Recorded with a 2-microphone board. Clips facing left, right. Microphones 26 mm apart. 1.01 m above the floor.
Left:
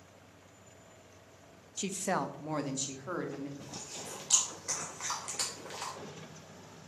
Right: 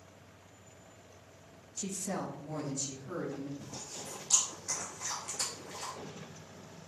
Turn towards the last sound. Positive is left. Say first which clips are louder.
# even
turn(degrees=85)